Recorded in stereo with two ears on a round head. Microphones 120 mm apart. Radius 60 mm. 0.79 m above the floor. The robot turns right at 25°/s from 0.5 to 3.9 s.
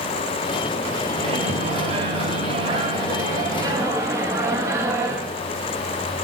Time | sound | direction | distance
1.1 | a microwave | 100° right | 0.7 m